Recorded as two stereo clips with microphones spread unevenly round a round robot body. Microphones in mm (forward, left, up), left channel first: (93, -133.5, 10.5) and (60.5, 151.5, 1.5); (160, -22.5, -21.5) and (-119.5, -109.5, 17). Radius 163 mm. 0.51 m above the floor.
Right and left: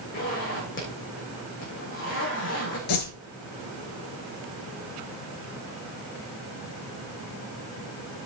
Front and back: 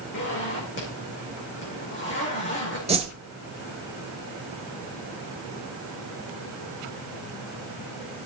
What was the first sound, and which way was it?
A zipper, 35° right.